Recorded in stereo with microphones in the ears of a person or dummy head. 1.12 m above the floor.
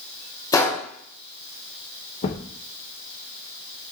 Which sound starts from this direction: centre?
A gunshot, at 0.5 s.